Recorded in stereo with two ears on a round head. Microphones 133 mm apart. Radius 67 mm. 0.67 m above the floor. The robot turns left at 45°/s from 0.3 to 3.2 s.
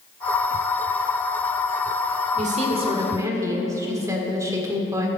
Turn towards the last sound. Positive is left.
turn(degrees=-155)